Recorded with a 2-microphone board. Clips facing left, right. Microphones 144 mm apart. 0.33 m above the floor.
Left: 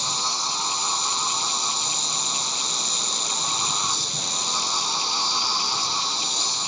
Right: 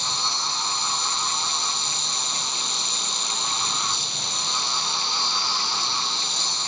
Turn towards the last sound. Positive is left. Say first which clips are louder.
# left 1 dB
turn(degrees=40)  # may be behind; listen again after turning